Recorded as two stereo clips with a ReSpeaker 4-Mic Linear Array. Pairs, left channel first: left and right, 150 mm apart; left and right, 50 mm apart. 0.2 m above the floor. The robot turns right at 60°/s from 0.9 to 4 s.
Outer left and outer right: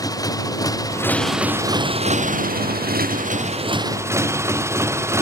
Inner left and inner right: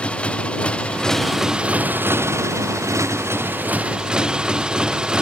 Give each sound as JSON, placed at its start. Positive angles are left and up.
{"t": 0.0, "sound": "a motorcycle", "azimuth_deg": 155}